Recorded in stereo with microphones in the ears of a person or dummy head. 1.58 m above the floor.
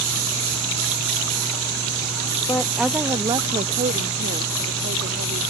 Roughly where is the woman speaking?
Centre.